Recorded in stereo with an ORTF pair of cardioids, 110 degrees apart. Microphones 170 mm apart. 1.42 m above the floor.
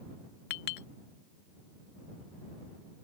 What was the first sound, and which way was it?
A clink, 70° left.